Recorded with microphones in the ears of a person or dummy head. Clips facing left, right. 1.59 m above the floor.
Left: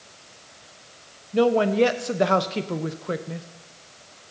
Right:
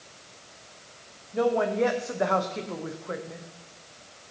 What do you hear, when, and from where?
1.3 s a woman speaking: 45° left (ahead or behind), 0.6 m